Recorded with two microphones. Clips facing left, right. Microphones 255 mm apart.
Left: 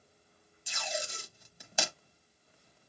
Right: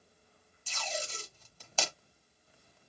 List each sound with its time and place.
0.7 s tape being pulled: 15° left (ahead or behind), 0.9 m